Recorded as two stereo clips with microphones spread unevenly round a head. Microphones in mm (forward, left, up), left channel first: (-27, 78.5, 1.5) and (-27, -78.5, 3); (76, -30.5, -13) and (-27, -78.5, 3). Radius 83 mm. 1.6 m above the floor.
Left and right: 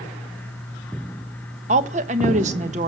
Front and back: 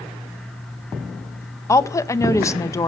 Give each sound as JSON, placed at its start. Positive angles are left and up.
{"t": 1.7, "sound": "a woman speaking", "azimuth_deg": -40, "distance_m": 1.4}